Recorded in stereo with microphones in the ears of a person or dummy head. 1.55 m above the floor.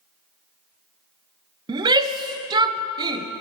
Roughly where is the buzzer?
I don't hear a buzzer.